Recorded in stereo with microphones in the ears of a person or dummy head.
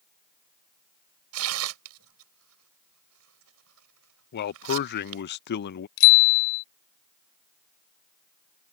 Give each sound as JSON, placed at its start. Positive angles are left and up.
{"t": 1.3, "sound": "tearing paper", "side_deg": -80}
{"t": 4.3, "sound": "a man speaking", "side_deg": 50}
{"t": 6.0, "sound": "a bicycle bell", "side_deg": 80}